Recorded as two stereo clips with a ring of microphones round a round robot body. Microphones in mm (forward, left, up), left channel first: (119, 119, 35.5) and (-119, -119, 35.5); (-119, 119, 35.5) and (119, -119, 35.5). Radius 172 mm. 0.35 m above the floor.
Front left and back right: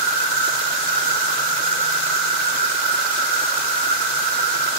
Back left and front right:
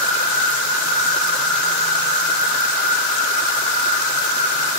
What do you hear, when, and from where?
0.0 s an insect: 130° left, 2.5 m